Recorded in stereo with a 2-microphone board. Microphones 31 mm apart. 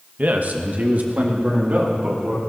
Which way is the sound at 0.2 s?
55° right (ahead or behind).